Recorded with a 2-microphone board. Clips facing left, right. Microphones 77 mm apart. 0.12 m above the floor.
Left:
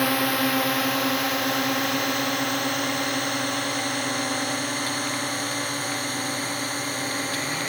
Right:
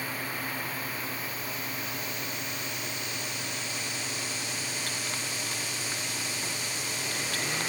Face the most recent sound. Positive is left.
turn(degrees=50)  # may be behind; listen again after turning